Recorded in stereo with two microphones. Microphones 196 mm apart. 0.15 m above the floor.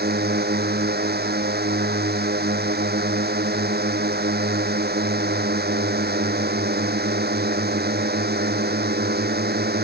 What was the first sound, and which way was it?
A drone, 60° right (ahead or behind).